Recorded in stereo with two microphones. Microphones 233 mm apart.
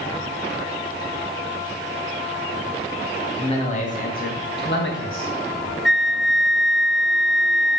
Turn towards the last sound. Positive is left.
turn(degrees=0)  # may be behind; listen again after turning